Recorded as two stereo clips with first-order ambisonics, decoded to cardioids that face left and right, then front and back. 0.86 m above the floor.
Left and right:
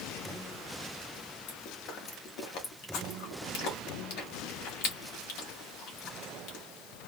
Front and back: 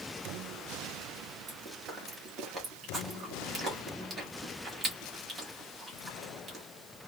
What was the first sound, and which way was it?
Chewing, 115° left.